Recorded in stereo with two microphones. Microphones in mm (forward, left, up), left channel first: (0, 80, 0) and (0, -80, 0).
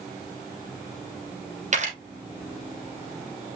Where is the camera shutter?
50° right (ahead or behind), 2.5 m.